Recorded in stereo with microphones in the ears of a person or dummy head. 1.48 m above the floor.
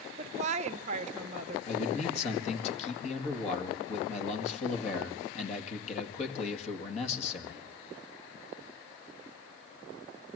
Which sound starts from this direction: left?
A man speaking, at 1.7 s.